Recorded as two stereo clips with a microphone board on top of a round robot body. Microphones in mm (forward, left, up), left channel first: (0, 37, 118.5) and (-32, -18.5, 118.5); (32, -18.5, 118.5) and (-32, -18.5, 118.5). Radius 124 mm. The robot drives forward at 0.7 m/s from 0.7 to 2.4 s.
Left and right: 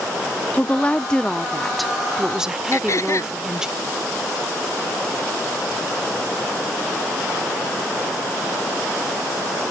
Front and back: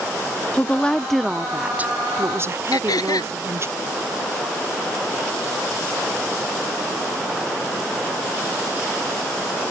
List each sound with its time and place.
0.5 s a woman speaking: 30° left; by 3.7 s 165° left
2.7 s throat clearing: 20° left